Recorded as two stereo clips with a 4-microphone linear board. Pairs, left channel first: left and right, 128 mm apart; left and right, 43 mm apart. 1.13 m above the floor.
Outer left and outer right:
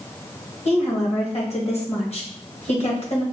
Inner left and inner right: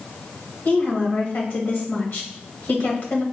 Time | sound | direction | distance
0.7 | a woman speaking | 55° left (ahead or behind) | 1.3 m